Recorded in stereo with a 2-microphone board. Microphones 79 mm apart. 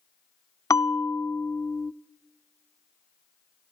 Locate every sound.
0.7 s a bell: 45° left (ahead or behind), 0.8 m